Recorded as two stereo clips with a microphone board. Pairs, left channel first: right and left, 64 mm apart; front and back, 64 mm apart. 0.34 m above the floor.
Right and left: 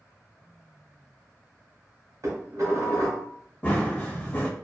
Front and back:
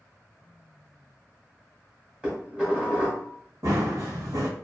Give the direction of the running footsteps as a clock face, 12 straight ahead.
5 o'clock.